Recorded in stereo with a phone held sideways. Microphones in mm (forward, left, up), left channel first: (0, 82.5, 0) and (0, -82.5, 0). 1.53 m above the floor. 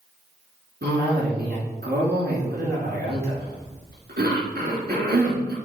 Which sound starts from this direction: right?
A cough, at 0.8 s.